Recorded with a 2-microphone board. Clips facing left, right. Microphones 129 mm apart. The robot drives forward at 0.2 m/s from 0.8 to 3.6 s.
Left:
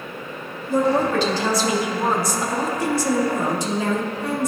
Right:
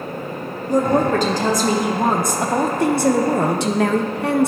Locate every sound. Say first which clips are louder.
0.7 s a woman speaking: right 2 dB; 40° right (ahead or behind), 1.0 m; by 4.5 s 70° right (ahead or behind), 0.7 m